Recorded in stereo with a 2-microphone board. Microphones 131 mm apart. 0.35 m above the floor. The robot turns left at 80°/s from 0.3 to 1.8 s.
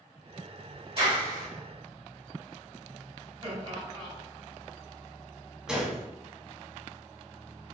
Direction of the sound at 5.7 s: 5° right (ahead or behind).